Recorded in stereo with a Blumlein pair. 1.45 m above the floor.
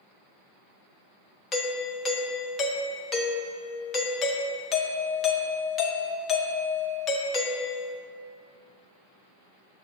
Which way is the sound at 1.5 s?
25° left.